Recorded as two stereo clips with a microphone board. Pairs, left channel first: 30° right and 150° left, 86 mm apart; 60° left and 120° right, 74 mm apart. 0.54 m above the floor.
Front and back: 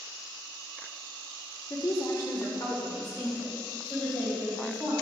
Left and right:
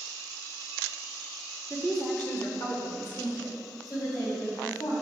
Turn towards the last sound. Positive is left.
turn(degrees=35)